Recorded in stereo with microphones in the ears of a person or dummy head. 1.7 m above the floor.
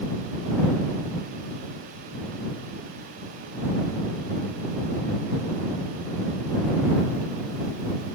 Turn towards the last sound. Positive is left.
No sound to turn to.